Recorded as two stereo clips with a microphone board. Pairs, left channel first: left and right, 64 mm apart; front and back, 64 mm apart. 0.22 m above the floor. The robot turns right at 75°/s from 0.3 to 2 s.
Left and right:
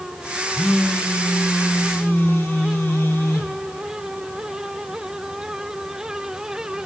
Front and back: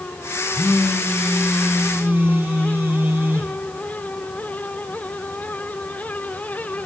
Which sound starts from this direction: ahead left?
A phone buzzing, at 0.5 s.